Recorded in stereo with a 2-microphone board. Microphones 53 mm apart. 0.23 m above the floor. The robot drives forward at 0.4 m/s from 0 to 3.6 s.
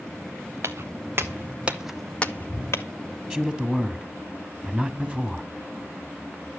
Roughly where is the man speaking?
Right.